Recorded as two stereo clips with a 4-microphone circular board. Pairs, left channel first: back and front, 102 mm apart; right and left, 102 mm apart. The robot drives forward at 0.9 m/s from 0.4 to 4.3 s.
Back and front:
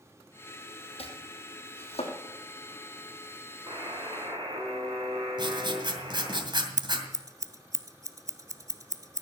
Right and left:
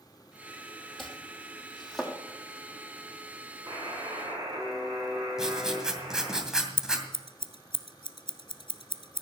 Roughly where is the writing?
Ahead.